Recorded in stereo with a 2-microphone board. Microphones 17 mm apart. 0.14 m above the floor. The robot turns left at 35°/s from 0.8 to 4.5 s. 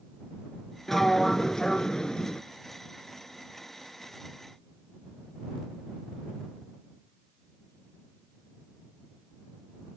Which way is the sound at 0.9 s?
165° left.